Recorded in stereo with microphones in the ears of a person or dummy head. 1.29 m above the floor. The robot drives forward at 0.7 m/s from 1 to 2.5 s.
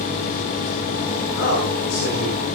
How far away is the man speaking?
About 6 m.